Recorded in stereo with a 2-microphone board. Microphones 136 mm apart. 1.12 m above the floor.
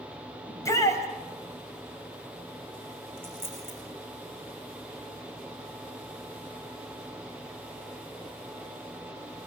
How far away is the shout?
About 5.5 m.